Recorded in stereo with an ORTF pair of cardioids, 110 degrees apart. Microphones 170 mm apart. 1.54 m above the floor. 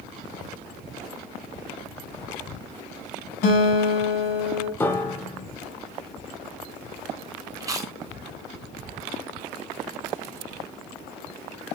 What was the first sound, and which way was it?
A guitar, 65° left.